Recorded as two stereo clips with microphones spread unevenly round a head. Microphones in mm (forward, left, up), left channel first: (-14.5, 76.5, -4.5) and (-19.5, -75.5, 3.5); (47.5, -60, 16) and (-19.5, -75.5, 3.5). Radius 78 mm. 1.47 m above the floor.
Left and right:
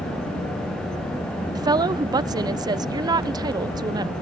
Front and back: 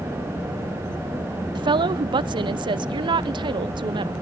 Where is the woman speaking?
160° right, 0.6 m.